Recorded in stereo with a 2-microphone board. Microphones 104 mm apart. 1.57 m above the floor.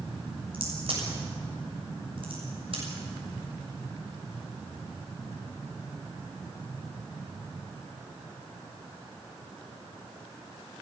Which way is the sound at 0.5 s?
55° right (ahead or behind).